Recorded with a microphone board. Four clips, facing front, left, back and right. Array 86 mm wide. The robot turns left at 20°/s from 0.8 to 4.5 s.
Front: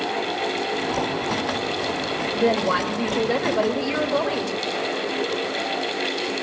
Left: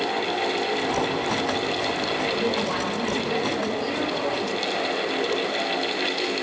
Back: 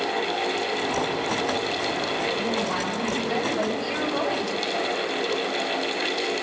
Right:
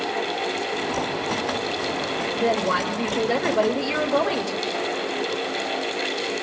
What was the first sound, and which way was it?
A woman speaking, 25° right.